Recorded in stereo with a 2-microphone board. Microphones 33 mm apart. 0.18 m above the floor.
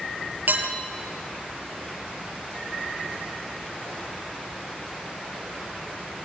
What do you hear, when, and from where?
0.5 s dishes clattering: 70° right (ahead or behind), 2.5 m